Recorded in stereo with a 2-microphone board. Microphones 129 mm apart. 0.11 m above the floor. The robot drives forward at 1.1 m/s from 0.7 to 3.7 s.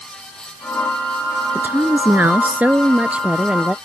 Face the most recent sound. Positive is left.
turn(degrees=-10)  # may be behind; listen again after turning